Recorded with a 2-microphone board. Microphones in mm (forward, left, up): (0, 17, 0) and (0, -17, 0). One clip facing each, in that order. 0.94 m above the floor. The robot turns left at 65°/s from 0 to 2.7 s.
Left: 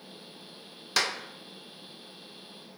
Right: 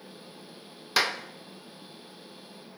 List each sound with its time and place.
1.0 s a clap: 10° right (ahead or behind), 0.6 m; by 1.2 s 20° right (ahead or behind), 0.6 m